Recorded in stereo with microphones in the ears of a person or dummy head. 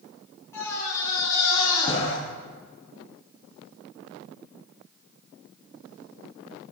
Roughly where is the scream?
Centre.